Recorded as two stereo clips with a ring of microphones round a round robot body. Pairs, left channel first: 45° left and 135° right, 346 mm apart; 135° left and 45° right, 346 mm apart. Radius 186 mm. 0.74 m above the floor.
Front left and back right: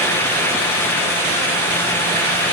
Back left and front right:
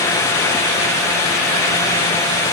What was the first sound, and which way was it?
Only background noise.